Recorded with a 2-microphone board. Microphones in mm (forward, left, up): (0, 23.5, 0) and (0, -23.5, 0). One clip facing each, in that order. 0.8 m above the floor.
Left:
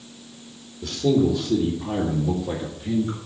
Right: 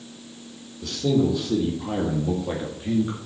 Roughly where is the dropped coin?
I don't hear a dropped coin.